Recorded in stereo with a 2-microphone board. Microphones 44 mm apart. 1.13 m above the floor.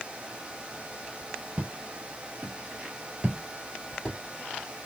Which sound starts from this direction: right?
Footsteps, at 1.6 s.